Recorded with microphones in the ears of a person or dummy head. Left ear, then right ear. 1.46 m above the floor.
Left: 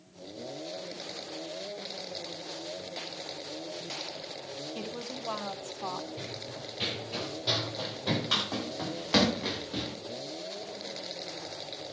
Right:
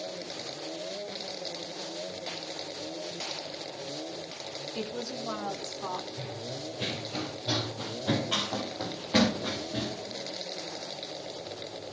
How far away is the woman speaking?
About 2.5 m.